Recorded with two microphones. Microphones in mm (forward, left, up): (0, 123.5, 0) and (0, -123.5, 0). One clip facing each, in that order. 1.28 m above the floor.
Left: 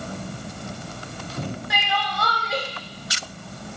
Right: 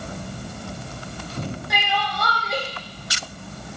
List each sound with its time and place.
1.7 s crying: centre (ahead or behind), 0.7 m